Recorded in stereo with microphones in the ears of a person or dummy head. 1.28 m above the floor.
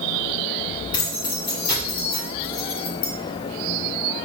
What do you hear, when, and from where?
0.9 s keys jangling: 25° left (ahead or behind), 2 m